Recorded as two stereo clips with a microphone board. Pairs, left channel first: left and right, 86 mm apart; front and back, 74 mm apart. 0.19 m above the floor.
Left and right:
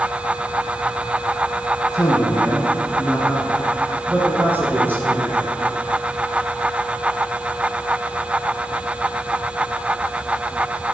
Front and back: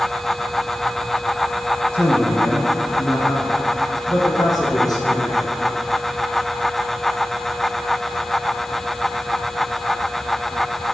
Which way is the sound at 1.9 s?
55° left.